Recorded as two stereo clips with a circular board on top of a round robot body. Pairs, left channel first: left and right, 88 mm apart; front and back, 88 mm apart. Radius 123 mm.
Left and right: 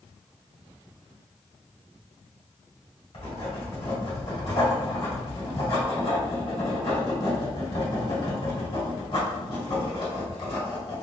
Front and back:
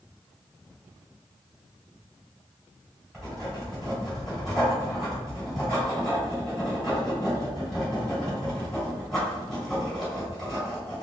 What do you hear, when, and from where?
3.1 s writing: 85° left, 2.0 m